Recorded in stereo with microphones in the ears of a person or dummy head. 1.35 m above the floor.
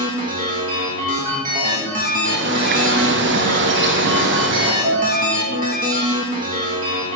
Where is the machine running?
45° right (ahead or behind), 1.3 m.